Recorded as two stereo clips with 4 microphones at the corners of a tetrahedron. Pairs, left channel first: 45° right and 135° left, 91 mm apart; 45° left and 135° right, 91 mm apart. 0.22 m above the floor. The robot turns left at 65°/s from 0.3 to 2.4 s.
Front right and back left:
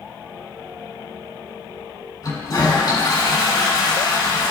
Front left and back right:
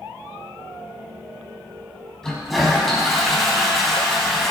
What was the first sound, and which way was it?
A toilet flushing, 35° right.